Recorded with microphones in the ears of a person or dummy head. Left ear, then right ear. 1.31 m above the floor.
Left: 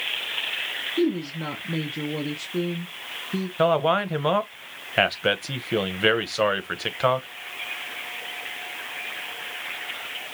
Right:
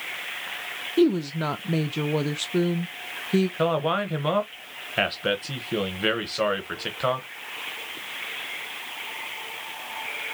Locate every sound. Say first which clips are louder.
1.0 s a woman speaking: right 6 dB; 40° right (ahead or behind), 0.5 m
3.6 s a man speaking: left 7 dB; 15° left (ahead or behind), 0.8 m